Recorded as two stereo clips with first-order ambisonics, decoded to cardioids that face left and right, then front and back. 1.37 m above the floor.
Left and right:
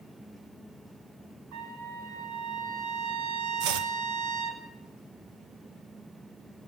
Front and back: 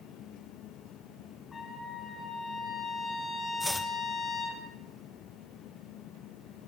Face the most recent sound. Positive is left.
turn(degrees=-85)